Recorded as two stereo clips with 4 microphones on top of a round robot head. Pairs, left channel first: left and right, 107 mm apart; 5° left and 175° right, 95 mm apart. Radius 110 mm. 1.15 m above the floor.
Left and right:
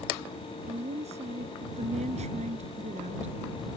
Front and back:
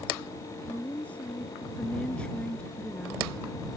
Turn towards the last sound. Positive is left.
turn(degrees=-75)